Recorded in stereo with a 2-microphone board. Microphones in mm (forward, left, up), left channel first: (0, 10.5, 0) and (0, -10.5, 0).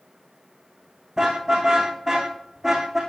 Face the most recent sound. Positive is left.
turn(degrees=-20)  # may be behind; listen again after turning